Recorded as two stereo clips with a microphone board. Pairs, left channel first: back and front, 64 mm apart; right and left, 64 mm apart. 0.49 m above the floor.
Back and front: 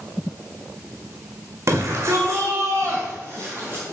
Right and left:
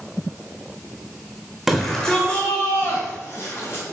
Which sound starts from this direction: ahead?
A shout, at 1.7 s.